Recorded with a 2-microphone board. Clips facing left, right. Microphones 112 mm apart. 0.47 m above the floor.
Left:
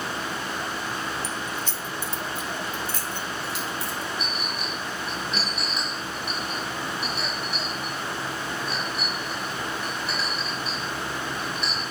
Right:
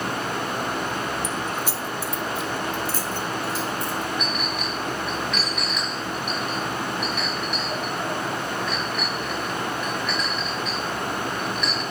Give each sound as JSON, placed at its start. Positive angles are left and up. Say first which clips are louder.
{"t": 1.2, "sound": "keys jangling", "louder": "right 4 dB", "side_deg": -45, "distance_m": 1.1}
{"t": 4.2, "sound": "a clink", "louder": "right 4 dB", "side_deg": 30, "distance_m": 5.0}